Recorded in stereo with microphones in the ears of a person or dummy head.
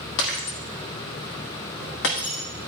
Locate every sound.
0.2 s breaking glass: 60° left (ahead or behind), 1.7 m